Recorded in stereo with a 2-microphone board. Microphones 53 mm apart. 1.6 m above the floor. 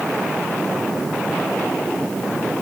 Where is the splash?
I don't hear a splash.